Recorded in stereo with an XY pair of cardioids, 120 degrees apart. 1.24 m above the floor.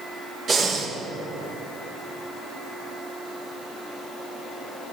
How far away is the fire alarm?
I don't hear a fire alarm.